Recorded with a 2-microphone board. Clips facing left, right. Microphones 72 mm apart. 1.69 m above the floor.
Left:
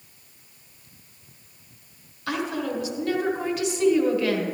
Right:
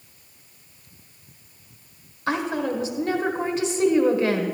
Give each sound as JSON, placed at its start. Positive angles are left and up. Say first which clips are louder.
{"t": 2.3, "sound": "a woman speaking", "louder": "right 3 dB", "side_deg": -30, "distance_m": 1.4}